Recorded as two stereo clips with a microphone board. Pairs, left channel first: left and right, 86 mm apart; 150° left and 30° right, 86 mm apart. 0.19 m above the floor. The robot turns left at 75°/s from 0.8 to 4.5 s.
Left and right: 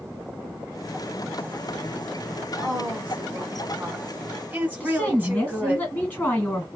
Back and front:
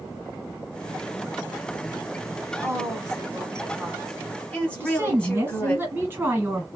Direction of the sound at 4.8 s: 30° left.